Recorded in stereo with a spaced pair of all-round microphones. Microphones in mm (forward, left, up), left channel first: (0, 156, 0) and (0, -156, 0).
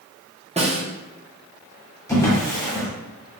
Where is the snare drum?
20° right (ahead or behind), 0.6 m.